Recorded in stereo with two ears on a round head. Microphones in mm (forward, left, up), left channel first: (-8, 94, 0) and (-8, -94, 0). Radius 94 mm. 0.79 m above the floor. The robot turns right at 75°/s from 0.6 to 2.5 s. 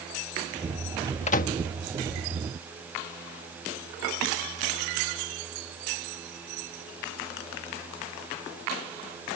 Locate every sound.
1.3 s a microwave: 35° left (ahead or behind); by 1.6 s 50° left (ahead or behind)